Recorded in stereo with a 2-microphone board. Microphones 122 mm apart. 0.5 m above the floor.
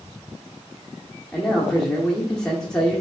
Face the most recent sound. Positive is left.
turn(degrees=5)  # may be behind; listen again after turning